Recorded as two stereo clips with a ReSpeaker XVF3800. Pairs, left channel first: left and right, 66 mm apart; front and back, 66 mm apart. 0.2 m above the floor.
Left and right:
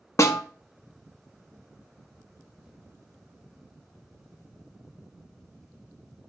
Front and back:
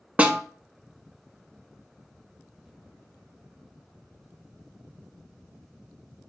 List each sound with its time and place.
0.2 s a snare drum: 115° left, 0.5 m